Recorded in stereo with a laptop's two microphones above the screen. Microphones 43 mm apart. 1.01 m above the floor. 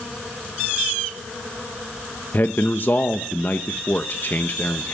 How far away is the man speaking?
About 0.9 m.